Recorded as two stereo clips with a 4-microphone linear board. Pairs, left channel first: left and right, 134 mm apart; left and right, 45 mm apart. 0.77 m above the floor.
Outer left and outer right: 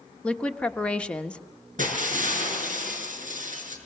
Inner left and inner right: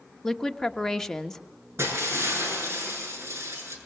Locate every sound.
0.2 s a woman speaking: 10° left (ahead or behind), 1.2 m
1.8 s breaking glass: 85° right, 6.5 m